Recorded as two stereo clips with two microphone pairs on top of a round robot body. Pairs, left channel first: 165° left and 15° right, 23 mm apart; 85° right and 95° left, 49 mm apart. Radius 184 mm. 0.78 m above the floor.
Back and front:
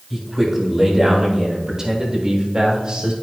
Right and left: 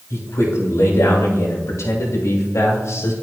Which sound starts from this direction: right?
A man speaking, at 0.1 s.